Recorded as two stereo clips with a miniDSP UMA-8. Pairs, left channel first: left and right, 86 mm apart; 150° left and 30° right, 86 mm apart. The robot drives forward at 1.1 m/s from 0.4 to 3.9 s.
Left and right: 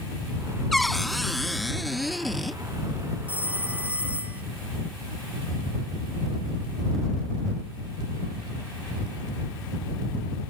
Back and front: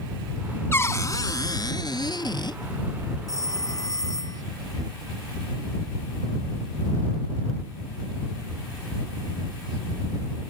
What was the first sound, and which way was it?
A cupboard door, 175° left.